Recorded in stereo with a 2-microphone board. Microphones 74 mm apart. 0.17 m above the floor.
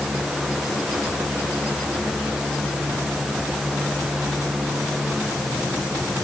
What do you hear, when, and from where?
Only background noise.